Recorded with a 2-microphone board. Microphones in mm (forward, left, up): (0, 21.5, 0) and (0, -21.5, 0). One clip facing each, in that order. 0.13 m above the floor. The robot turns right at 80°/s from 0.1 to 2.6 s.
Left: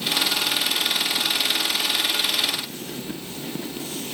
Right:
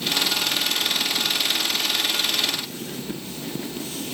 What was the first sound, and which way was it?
Only background noise.